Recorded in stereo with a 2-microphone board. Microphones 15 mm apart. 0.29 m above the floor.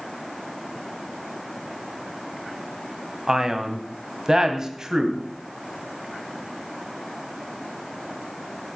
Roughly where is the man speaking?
Right.